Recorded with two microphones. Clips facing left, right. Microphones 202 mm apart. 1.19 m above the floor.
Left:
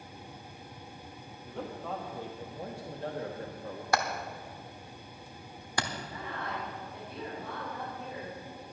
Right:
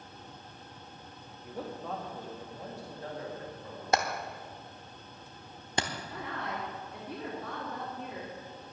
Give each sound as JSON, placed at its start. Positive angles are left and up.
{"t": 1.4, "sound": "a man speaking", "side_deg": -10, "distance_m": 1.6}
{"t": 3.9, "sound": "hammering", "side_deg": -20, "distance_m": 1.0}
{"t": 6.1, "sound": "a woman speaking", "side_deg": -75, "distance_m": 3.0}